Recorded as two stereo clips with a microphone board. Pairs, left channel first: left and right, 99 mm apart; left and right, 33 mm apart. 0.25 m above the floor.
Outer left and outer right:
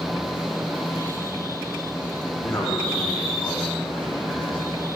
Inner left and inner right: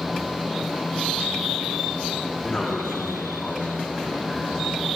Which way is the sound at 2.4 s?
10° left (ahead or behind).